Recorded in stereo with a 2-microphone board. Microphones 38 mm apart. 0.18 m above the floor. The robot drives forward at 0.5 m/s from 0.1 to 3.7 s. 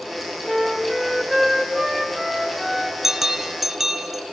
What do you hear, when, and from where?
0.5 s a flute: centre (ahead or behind), 0.8 m
3.0 s a bell: 10° right (ahead or behind), 0.6 m; by 4.2 s 5° right (ahead or behind), 0.8 m